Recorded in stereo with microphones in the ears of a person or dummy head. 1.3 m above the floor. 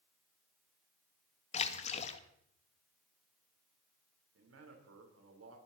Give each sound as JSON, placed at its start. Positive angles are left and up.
{"t": 1.5, "sound": "a splash", "side_deg": 40, "distance_m": 1.3}
{"t": 4.3, "sound": "a man speaking", "side_deg": -85, "distance_m": 4.0}